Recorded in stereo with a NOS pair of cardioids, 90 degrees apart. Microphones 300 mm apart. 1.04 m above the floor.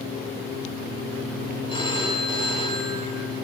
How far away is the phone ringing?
About 2.0 m.